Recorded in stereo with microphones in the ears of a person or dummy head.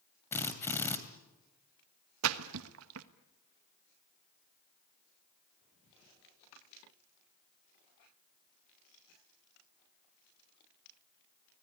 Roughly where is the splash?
Right.